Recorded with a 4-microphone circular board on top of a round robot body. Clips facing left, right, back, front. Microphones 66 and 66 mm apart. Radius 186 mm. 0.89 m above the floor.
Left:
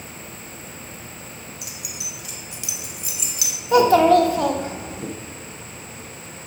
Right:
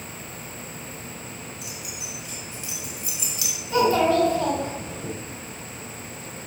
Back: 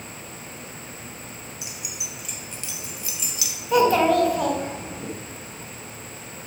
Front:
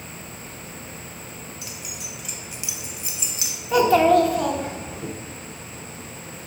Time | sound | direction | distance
1.6 | keys jangling | 110° left | 1.2 m
3.7 | a child speaking | 90° left | 1.5 m